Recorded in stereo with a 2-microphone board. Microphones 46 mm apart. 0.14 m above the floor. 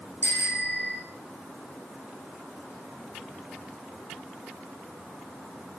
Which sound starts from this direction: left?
A bicycle bell, at 0.2 s.